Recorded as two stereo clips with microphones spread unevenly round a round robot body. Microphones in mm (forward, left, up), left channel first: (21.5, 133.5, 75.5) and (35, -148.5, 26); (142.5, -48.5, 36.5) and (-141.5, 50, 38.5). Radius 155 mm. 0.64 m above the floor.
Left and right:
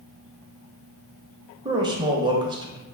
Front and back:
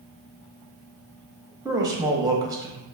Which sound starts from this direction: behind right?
A man speaking, at 1.6 s.